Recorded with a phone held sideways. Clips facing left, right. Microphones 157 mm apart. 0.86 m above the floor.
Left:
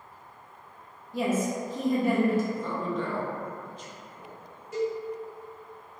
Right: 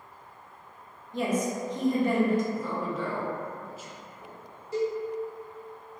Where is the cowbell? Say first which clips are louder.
Right 1 dB; 35° right (ahead or behind), 1.1 m.